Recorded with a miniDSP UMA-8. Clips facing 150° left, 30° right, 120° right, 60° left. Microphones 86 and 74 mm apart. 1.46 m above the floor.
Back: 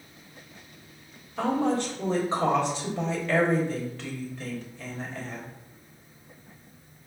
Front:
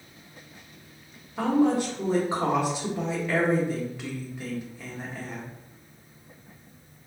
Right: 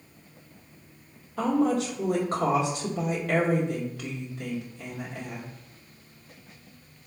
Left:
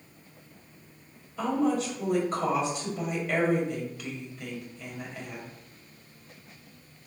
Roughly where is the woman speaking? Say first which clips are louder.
Front 3 dB, right 2 dB; right.